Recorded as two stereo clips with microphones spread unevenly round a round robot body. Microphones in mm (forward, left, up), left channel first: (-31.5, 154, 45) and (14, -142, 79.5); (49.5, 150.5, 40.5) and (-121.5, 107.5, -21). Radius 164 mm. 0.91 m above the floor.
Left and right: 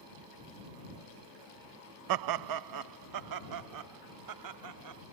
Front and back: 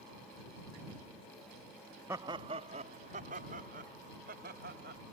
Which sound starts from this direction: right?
Laughter, at 2.1 s.